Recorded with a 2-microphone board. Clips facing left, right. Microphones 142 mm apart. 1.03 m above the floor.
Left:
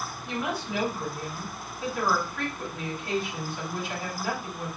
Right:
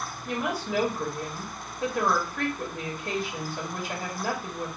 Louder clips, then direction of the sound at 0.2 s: Right 2 dB; 45° right (ahead or behind).